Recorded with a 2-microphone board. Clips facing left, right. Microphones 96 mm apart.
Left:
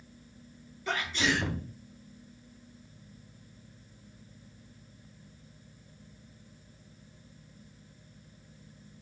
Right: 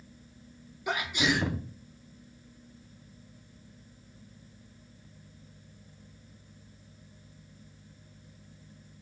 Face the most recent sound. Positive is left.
turn(degrees=-15)  # may be behind; listen again after turning